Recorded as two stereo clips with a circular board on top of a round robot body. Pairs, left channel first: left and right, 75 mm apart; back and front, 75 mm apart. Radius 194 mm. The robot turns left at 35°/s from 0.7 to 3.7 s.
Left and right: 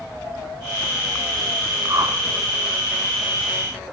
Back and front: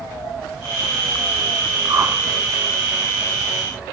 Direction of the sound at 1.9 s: 45° right.